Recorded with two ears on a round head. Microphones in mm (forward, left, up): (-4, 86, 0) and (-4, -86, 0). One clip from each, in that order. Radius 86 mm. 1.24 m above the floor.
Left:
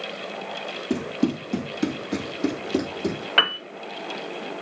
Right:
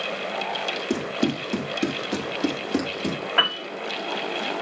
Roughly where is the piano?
Left.